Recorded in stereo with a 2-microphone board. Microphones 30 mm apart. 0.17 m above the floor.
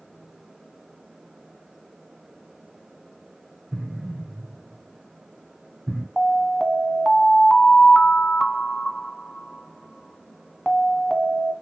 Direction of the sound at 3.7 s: 15° right (ahead or behind).